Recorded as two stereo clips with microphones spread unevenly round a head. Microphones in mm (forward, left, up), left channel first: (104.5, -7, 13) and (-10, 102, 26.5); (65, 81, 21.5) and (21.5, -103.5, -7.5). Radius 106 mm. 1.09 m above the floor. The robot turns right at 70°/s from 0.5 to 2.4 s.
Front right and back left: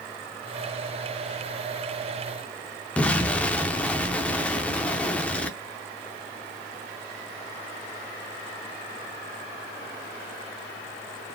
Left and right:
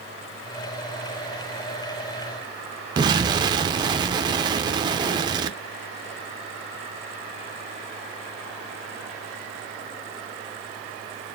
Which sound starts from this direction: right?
An explosion, at 3.0 s.